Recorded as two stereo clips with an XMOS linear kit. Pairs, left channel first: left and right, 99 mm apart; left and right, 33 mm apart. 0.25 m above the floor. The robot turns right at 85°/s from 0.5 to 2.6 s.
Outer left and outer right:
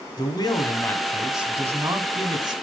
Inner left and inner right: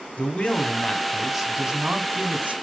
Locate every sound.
0.2 s a man speaking: 115° left, 1.5 m; by 2.5 s 70° right, 1.5 m